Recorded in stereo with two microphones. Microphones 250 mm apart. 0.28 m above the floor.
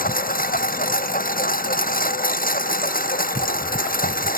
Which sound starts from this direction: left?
A lawn mower, at 0.0 s.